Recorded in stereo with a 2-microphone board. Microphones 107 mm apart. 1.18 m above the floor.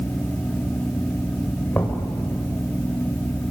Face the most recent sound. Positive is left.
turn(degrees=20)  # may be behind; listen again after turning